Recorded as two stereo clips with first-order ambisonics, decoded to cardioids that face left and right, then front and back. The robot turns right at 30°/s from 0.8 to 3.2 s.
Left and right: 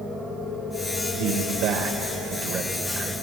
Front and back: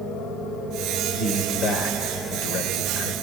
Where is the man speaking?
75° right, 2.5 m; by 3.1 s 10° right, 2.5 m.